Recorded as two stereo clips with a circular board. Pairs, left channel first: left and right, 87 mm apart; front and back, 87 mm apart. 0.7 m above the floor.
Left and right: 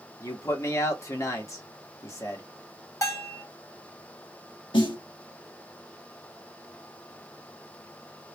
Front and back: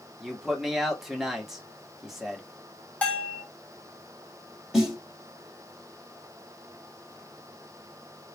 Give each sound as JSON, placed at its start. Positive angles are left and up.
{"t": 0.2, "sound": "a man speaking", "azimuth_deg": 95, "distance_m": 1.0}
{"t": 3.0, "sound": "a bell", "azimuth_deg": 65, "distance_m": 1.0}
{"t": 4.7, "sound": "a snare drum", "azimuth_deg": 95, "distance_m": 1.1}